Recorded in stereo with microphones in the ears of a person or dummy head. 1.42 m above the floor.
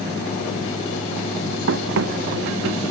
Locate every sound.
1.7 s running footsteps: 75° right (ahead or behind); by 2.8 s 70° right (ahead or behind)